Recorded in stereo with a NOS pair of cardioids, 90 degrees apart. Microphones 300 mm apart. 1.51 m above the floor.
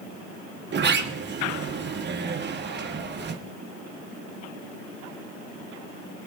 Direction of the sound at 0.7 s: 40° right.